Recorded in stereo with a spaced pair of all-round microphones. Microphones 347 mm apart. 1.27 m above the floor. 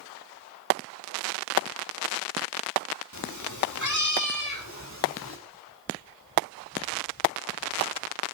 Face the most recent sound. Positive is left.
turn(degrees=45)  # may be behind; listen again after turning